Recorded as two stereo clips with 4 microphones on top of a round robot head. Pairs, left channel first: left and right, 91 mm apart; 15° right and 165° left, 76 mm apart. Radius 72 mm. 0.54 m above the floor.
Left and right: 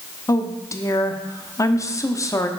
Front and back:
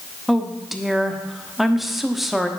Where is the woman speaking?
80° left, 1.1 m.